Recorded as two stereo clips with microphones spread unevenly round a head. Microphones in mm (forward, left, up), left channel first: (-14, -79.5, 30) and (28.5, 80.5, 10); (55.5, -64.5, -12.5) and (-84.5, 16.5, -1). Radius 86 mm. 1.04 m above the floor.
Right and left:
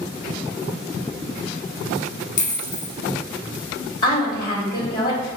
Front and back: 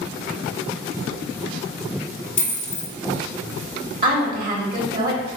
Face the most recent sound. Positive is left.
turn(degrees=-175)